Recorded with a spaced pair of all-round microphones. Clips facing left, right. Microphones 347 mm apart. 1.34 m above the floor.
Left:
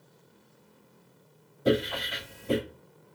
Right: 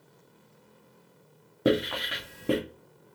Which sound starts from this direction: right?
Writing, at 1.6 s.